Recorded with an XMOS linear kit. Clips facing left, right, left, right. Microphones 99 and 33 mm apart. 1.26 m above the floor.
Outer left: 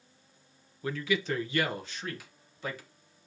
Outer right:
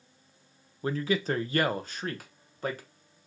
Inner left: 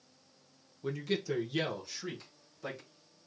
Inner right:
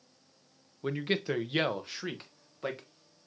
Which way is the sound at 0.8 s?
30° right (ahead or behind).